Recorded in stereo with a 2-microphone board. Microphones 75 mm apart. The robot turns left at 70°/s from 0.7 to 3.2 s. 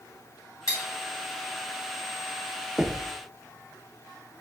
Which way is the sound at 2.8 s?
10° right (ahead or behind).